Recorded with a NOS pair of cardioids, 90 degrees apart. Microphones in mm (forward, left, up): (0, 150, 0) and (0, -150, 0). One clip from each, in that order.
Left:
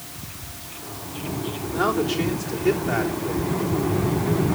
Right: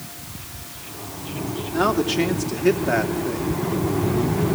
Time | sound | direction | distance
1.7 | a man speaking | 40° right | 3.5 m